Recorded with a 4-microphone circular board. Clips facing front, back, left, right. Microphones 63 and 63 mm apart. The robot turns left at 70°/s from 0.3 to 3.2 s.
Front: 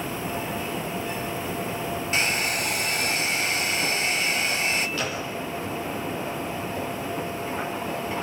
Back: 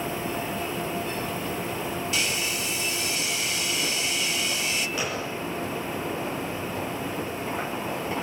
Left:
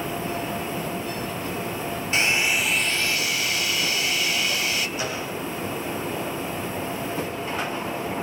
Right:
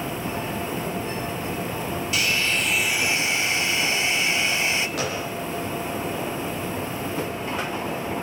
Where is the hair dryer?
40° left, 1.2 m; by 4.9 s 35° right, 1.2 m.